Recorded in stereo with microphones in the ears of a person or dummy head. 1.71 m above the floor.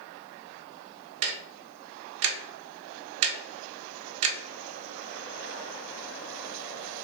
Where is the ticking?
75° right (ahead or behind), 0.6 m.